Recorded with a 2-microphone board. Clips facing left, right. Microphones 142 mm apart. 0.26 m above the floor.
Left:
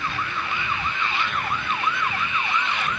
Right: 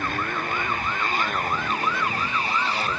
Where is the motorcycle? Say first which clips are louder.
Right 2 dB; 45° right (ahead or behind); by 3.0 s 35° right (ahead or behind).